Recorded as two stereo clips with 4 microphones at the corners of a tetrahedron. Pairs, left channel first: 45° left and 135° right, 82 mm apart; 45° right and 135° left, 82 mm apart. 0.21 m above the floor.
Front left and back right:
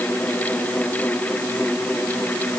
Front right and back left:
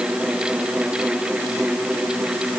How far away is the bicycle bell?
I don't hear a bicycle bell.